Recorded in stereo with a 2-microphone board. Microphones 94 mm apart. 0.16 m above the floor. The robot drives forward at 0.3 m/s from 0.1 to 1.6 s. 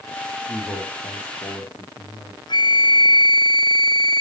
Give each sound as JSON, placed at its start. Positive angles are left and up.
{"t": 0.5, "sound": "a man speaking", "side_deg": 30, "distance_m": 4.5}
{"t": 2.5, "sound": "a flute", "side_deg": 50, "distance_m": 1.4}